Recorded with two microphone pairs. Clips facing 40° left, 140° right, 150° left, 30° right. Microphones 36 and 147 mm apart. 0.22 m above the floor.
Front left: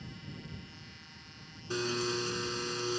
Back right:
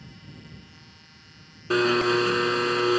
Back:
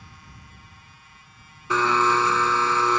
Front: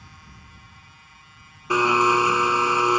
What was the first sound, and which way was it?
A blender, 110° right.